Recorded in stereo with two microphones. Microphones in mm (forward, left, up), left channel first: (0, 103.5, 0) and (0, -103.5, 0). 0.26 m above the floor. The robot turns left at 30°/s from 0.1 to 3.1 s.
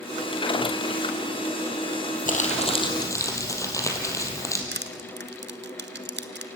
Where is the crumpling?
40° left (ahead or behind), 3 m; by 4.6 s 15° left (ahead or behind), 3 m.